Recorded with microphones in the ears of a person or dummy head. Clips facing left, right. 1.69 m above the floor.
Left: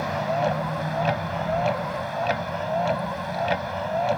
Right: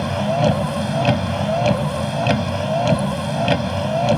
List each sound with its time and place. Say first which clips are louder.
0.0 s a vehicle: right 6 dB; 45° right (ahead or behind)